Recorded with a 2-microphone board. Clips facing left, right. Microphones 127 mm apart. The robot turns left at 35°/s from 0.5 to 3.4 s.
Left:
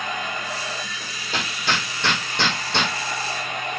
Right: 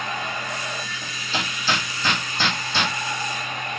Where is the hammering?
40° left (ahead or behind), 5.5 m; by 2.9 s 70° left (ahead or behind), 5.5 m.